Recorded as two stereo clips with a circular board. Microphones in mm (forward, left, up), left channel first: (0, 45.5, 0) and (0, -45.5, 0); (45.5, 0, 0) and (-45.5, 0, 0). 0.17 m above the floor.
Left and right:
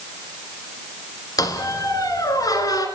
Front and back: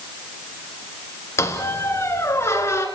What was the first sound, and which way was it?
A squeak, 55° left.